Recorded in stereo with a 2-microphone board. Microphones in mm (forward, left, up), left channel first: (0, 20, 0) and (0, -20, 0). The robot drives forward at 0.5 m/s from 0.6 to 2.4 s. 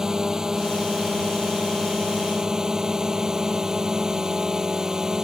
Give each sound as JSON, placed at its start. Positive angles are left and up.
{"t": 0.0, "sound": "a drone", "side_deg": -20}